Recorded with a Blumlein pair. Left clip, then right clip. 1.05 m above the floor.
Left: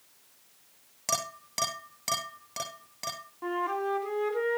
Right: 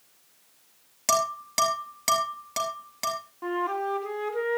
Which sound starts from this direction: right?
Dishes clattering, at 1.1 s.